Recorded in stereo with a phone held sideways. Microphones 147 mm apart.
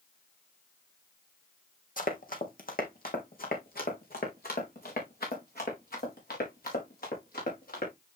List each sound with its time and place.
2.0 s running footsteps: 65° left (ahead or behind), 1.8 m; by 7.9 s 80° left, 5.5 m